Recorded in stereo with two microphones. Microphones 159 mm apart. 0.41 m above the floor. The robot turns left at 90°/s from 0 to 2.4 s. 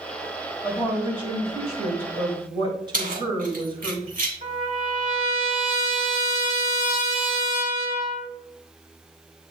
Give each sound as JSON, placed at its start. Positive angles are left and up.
{"t": 0.6, "sound": "a woman speaking", "azimuth_deg": 10, "distance_m": 2.0}
{"t": 2.9, "sound": "keys jangling", "side_deg": -60, "distance_m": 2.0}
{"t": 4.4, "sound": "a trumpet", "side_deg": -50, "distance_m": 2.5}